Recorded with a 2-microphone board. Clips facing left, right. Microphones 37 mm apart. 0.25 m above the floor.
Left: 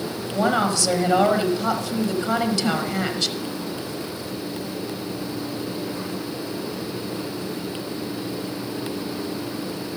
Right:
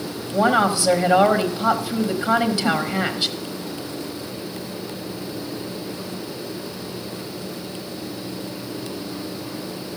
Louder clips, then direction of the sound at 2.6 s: Right 2 dB; 55° left (ahead or behind).